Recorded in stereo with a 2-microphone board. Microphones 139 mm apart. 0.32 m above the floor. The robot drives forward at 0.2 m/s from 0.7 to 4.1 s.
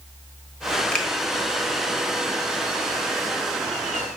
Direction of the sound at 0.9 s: 5° left (ahead or behind).